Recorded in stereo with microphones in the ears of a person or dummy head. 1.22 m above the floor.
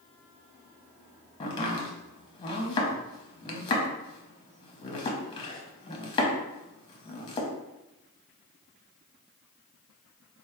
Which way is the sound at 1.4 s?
25° left (ahead or behind).